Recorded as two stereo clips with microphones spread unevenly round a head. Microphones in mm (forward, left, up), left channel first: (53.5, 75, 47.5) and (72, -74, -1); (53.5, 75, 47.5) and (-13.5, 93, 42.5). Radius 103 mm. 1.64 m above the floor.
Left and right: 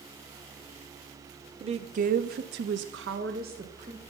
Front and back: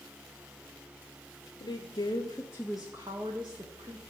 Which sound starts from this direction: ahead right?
A woman speaking, at 1.6 s.